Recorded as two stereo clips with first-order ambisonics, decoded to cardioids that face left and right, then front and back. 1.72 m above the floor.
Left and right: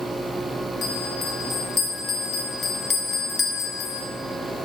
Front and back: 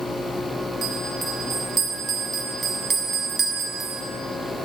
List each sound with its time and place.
0.8 s a bell: 135° left, 0.7 m